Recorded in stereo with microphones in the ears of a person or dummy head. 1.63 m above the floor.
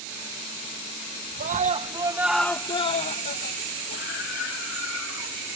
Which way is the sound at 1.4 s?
40° right (ahead or behind).